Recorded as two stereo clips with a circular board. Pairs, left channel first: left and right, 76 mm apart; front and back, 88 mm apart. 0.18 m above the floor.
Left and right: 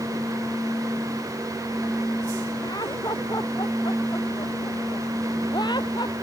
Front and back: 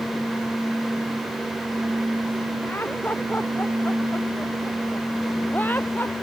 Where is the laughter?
65° left; by 6.1 s 70° left.